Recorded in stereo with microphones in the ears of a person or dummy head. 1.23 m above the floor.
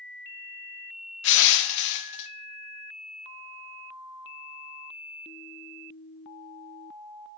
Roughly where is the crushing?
Left.